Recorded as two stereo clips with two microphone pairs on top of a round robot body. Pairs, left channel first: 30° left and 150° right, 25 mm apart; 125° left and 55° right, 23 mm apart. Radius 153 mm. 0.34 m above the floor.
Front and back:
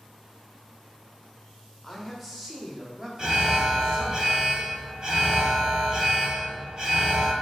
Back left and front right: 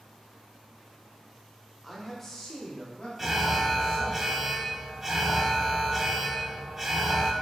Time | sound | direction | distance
1.8 | a man speaking | 15° left | 1.0 m
3.2 | an alarm | 100° right | 0.9 m